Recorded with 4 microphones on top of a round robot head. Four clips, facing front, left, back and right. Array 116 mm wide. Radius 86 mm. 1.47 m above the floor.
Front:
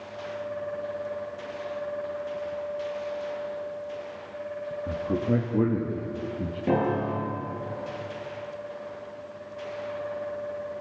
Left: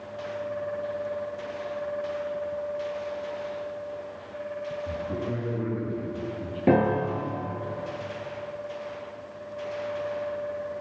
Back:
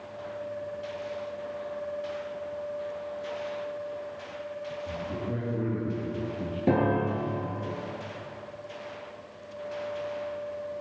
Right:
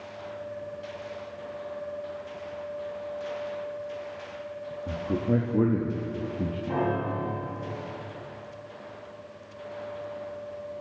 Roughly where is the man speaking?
Ahead right.